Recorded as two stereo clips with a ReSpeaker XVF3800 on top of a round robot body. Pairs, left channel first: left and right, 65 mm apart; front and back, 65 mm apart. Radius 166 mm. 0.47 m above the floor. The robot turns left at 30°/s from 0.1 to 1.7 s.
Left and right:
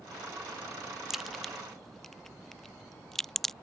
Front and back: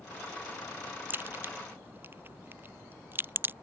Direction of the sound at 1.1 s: 170° right.